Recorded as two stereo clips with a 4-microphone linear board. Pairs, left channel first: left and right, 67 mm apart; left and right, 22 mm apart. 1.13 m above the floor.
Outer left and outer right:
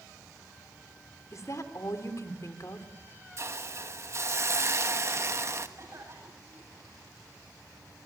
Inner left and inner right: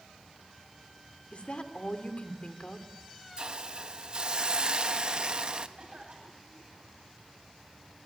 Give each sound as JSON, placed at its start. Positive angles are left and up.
{"t": 1.3, "sound": "a woman speaking", "side_deg": 50, "distance_m": 2.5}
{"t": 3.4, "sound": "a hiss", "side_deg": -45, "distance_m": 1.3}
{"t": 5.8, "sound": "a cough", "side_deg": -40, "distance_m": 9.5}